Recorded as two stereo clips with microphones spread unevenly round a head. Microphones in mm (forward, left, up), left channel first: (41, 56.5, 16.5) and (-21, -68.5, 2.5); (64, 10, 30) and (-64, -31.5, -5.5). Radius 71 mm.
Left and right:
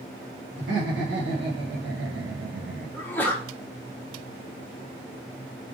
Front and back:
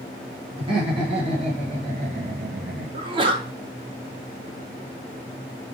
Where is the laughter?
105° right, 1.7 m; by 3.0 s 150° right, 0.9 m.